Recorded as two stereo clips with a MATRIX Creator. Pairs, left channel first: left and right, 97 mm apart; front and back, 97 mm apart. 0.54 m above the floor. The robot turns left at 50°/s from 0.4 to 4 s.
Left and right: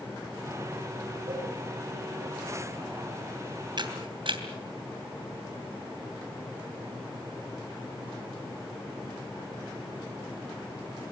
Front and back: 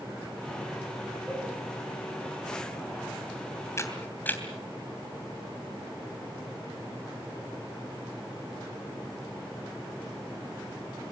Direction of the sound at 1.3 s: 105° right.